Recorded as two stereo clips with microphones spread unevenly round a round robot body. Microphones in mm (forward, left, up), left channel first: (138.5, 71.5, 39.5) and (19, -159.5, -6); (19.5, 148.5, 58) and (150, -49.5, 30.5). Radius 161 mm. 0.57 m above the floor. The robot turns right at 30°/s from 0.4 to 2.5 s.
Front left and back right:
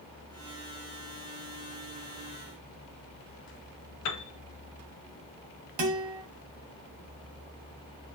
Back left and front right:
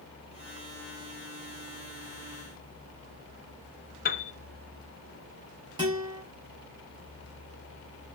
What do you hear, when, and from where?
4.0 s a piano: 75° left, 0.6 m
5.8 s a guitar: 135° right, 1.1 m